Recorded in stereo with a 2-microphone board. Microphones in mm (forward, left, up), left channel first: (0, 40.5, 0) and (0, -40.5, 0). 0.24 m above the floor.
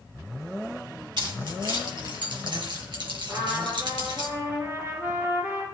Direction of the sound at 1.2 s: 70° right (ahead or behind).